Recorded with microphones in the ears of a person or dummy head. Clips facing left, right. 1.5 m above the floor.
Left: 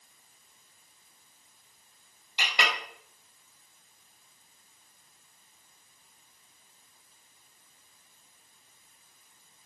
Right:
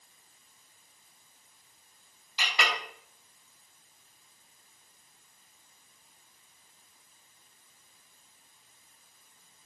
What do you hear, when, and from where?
2.4 s a clink: 20° left (ahead or behind), 1.0 m